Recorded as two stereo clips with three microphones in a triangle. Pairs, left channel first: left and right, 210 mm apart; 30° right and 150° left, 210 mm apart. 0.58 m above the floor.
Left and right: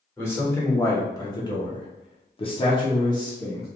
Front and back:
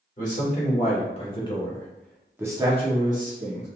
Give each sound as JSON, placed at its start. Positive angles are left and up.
{"t": 0.2, "sound": "a man speaking", "azimuth_deg": 15, "distance_m": 1.5}